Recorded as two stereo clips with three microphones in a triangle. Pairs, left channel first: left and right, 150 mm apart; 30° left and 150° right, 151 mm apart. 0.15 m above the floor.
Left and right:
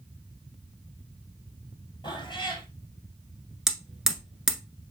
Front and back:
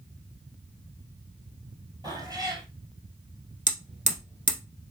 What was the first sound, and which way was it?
A cat meowing, 150° left.